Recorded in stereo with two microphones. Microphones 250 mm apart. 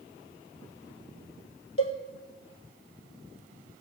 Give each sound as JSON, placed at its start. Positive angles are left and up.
{"t": 1.8, "sound": "a cowbell", "side_deg": 60, "distance_m": 1.3}